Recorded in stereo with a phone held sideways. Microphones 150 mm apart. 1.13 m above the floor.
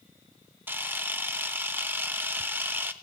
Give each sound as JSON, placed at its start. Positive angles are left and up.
{"t": 0.7, "sound": "a camera shutter", "side_deg": -15, "distance_m": 0.5}